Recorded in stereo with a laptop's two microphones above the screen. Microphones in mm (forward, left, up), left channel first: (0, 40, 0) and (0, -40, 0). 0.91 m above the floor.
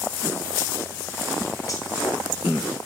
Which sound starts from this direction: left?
Cutlery clinking, at 1.7 s.